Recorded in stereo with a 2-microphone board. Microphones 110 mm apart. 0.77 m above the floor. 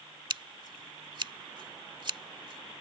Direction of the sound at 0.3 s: 45° right (ahead or behind).